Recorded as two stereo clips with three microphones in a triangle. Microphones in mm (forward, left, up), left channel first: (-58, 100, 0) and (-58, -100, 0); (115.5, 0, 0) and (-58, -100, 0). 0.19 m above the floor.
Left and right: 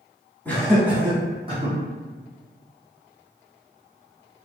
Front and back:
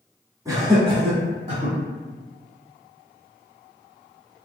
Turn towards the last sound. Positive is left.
turn(degrees=-125)